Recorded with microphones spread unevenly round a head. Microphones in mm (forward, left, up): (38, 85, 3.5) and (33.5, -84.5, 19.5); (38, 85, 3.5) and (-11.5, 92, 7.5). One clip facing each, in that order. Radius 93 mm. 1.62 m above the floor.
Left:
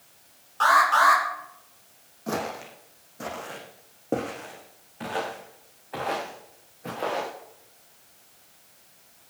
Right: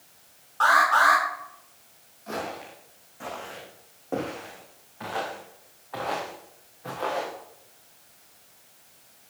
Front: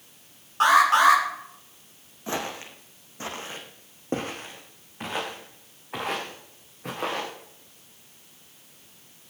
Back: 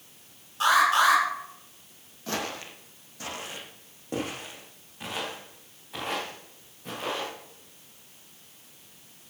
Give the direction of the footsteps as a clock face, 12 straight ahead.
10 o'clock.